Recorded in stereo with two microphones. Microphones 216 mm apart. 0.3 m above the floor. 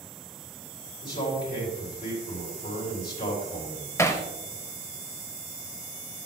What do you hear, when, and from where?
1.0 s a man speaking: 50° left (ahead or behind), 4 m
4.0 s hammering: 15° left (ahead or behind), 0.7 m